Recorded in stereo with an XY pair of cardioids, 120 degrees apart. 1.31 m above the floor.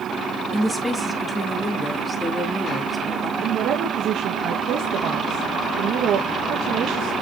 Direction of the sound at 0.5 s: 5° left.